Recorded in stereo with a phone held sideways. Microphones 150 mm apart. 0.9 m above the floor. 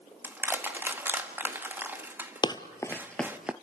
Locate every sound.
0.2 s crushing: 15° right (ahead or behind), 1.7 m
2.4 s running footsteps: 30° left (ahead or behind), 1.0 m; by 3.5 s 10° right (ahead or behind), 0.8 m